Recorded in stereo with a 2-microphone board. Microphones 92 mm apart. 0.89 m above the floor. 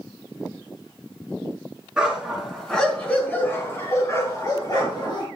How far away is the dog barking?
About 4 m.